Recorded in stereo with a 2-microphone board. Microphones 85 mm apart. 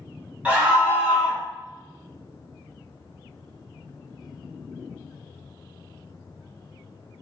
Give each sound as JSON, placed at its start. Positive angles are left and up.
{"t": 0.5, "sound": "a scream", "side_deg": -20, "distance_m": 1.0}